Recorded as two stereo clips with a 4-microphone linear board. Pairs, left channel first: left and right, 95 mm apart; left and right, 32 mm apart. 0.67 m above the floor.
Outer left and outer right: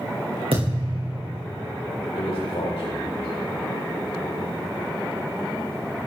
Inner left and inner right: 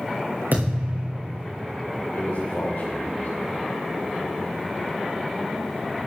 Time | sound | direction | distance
0.5 | a thud | 75° right (ahead or behind) | 6 m
2.1 | a man speaking | 75° left (ahead or behind) | 2.5 m